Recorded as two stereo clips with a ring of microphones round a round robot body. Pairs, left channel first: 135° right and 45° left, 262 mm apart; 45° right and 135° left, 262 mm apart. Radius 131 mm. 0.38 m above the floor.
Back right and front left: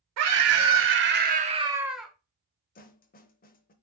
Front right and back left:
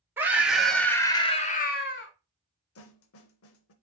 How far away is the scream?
About 1.6 m.